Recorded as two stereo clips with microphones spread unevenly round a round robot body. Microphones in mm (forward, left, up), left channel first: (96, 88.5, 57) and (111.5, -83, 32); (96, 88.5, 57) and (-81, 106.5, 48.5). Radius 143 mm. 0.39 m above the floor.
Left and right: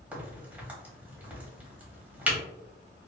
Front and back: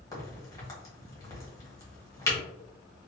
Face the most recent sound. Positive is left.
turn(degrees=-50)